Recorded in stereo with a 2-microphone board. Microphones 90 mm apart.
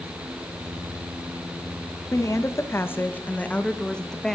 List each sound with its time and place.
2.1 s a woman speaking: 35° left (ahead or behind), 2.5 m; by 4.4 s 5° left (ahead or behind), 3 m